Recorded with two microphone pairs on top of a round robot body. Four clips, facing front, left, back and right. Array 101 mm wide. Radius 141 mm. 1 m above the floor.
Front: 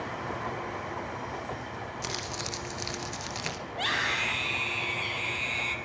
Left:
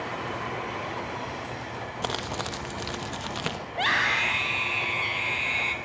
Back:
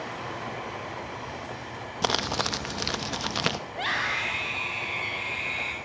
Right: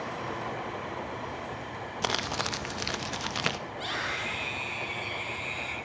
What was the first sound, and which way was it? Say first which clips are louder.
Crumpling: right 1 dB, back 9 dB; 175° right.